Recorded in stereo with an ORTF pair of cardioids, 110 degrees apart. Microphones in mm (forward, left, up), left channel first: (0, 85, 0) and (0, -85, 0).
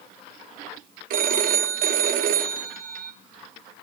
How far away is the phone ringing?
About 0.7 m.